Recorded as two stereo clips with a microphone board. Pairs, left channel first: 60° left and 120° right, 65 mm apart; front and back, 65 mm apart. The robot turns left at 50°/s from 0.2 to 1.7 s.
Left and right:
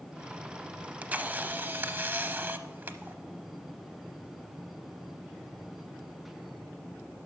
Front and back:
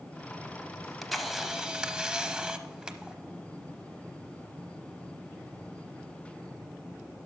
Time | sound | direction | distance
0.8 | a camera shutter | 70° right | 0.7 m